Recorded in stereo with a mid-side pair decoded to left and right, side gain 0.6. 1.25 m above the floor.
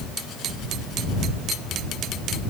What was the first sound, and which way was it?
Only background noise.